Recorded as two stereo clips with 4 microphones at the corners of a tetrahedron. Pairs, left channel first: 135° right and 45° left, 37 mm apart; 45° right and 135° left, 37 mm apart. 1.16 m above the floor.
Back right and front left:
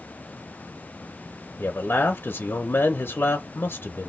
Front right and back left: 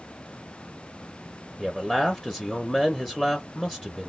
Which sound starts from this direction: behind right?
A man speaking, at 1.6 s.